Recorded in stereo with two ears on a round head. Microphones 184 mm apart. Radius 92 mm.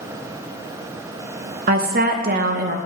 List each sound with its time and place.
1.7 s a woman speaking: 45° right (ahead or behind), 0.7 m